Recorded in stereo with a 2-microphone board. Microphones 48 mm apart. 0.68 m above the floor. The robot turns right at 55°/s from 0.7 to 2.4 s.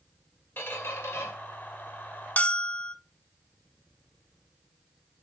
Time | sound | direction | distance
0.6 | a squeak | 50° left | 2 m
2.4 | a bell | 35° left (ahead or behind) | 0.6 m